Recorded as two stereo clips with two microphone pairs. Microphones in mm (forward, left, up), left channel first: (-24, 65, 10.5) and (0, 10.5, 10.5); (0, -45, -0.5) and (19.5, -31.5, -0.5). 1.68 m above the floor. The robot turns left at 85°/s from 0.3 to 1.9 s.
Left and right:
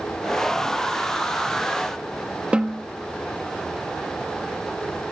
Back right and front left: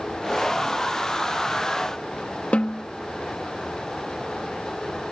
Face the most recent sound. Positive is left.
turn(degrees=-135)